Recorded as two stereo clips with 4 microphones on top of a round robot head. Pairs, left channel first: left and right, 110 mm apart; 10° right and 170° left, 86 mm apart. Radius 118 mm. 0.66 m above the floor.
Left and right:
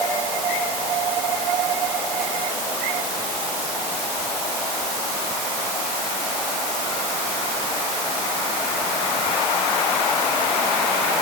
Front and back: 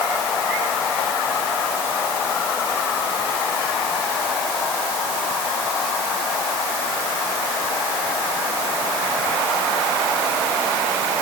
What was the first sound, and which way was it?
Only background noise.